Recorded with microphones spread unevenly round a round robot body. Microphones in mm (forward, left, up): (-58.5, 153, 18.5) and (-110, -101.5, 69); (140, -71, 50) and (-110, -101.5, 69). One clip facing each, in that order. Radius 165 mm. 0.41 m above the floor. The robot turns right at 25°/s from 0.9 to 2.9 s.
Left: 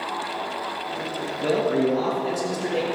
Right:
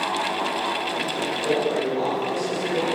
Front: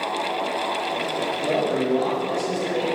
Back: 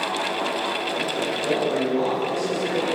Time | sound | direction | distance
1.4 | a man speaking | 75° left | 4 m